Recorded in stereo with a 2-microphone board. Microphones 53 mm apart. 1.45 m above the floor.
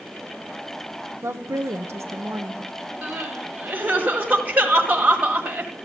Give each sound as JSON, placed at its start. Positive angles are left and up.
{"t": 1.2, "sound": "a woman speaking", "side_deg": -60, "distance_m": 0.7}
{"t": 3.0, "sound": "crying", "side_deg": -30, "distance_m": 1.4}